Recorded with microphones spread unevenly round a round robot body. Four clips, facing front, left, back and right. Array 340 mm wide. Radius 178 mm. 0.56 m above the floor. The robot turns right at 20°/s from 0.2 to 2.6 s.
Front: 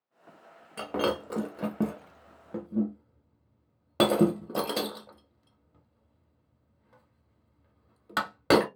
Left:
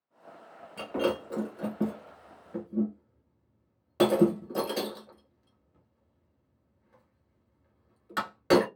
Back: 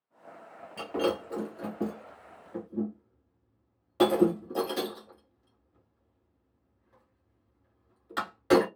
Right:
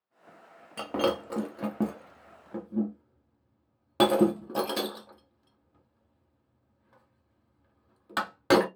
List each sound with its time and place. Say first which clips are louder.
0.8 s breaking glass: right 1 dB, even; 65° right, 0.9 m; by 8.7 s 30° right, 0.9 m